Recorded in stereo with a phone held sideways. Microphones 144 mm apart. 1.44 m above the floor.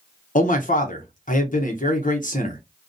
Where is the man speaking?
60° left (ahead or behind), 0.8 m.